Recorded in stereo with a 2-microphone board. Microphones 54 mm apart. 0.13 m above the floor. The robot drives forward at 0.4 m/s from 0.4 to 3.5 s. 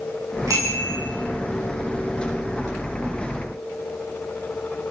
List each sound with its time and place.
0.5 s a bicycle bell: 85° right, 9.5 m